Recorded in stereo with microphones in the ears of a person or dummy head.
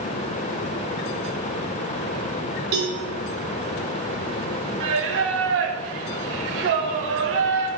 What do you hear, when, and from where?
2.7 s a cowbell: 50° right (ahead or behind), 1.6 m
4.8 s singing: 65° right (ahead or behind), 1.0 m